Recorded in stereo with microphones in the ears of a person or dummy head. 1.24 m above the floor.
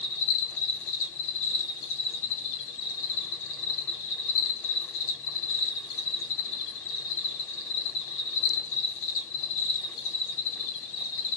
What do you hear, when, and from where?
0.0 s an insect: 75° left (ahead or behind), 1.0 m